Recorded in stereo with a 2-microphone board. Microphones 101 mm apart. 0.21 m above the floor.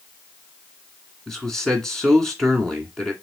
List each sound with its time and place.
1.3 s a man speaking: 5° left (ahead or behind), 1.9 m